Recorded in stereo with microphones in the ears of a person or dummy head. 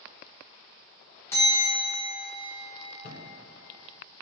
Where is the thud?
35° left (ahead or behind), 1.4 m.